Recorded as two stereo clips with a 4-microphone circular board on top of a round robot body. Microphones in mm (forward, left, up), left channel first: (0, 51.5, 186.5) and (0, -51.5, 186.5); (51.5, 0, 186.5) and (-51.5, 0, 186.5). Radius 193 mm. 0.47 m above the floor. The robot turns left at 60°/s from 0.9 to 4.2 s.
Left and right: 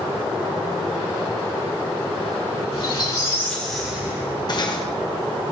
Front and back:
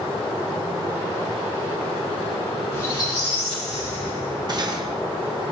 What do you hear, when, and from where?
2.7 s a squeak: 60° left, 3 m; by 4.9 s 30° right, 3 m
4.5 s cutlery clinking: 135° left, 1.2 m